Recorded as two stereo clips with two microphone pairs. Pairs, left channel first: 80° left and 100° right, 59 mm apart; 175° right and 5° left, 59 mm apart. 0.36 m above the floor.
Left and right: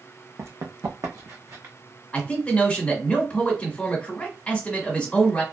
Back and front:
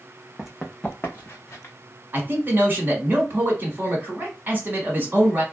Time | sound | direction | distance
0.4 | running footsteps | 70° right | 0.7 m
2.1 | a man speaking | 25° left | 1.4 m